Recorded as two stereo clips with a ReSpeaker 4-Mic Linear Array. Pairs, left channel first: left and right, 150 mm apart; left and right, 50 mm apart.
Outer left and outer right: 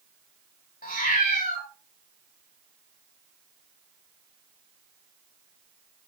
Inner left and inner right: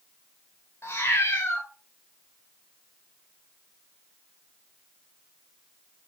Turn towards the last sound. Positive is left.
turn(degrees=65)  # may be behind; listen again after turning